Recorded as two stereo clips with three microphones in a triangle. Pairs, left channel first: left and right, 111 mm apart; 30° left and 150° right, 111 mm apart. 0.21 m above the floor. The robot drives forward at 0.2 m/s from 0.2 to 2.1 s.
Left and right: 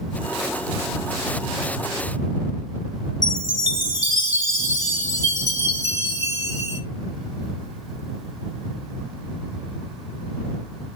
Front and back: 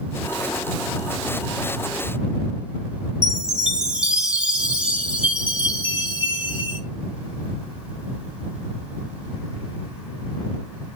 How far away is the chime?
About 1.4 m.